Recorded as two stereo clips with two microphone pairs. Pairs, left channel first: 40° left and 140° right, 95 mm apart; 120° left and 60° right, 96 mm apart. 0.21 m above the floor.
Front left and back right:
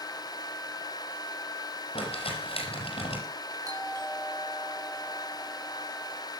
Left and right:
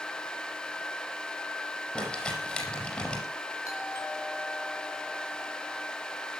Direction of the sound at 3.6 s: 175° left.